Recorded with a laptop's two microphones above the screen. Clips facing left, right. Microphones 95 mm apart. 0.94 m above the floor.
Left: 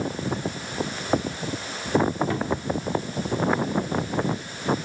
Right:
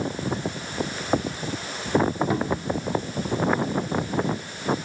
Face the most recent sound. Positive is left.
turn(degrees=-20)  # may be behind; listen again after turning